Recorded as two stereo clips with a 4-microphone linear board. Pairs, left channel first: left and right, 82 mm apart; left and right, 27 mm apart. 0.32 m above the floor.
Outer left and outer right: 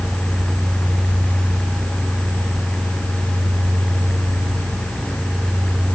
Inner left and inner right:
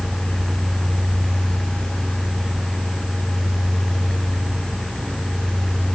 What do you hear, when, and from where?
Only background noise.